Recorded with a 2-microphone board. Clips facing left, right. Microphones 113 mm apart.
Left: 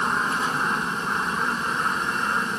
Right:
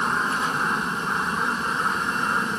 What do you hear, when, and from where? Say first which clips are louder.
0.0 s an aircraft: even; centre (ahead or behind); by 2.6 s 5° right (ahead or behind)